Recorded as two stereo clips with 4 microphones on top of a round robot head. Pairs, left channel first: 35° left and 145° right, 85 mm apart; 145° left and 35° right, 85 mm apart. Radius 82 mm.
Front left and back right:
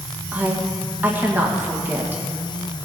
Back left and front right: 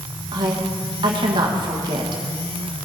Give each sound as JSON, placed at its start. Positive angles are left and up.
{"t": 0.3, "sound": "a woman speaking", "azimuth_deg": -75, "distance_m": 1.6}